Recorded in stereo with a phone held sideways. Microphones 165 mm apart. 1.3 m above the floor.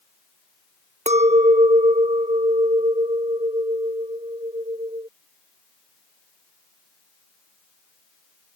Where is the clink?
45° right (ahead or behind).